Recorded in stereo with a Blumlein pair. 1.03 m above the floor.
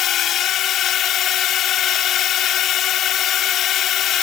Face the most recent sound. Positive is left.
turn(degrees=30)